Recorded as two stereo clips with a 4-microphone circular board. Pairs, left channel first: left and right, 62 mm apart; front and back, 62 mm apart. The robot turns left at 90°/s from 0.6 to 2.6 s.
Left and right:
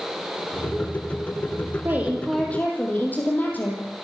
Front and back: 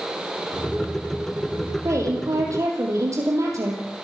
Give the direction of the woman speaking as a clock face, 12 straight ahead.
5 o'clock.